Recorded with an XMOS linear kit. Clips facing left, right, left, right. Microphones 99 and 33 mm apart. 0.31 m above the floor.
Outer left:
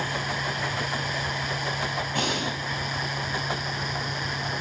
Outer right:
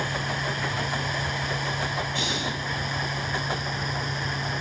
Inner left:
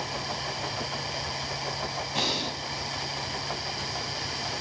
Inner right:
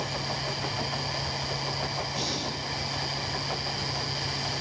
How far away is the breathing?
About 2.5 m.